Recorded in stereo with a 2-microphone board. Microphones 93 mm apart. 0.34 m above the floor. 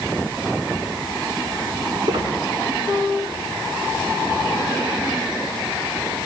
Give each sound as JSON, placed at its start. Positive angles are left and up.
{"t": 2.0, "sound": "a squeak", "side_deg": -55, "distance_m": 3.5}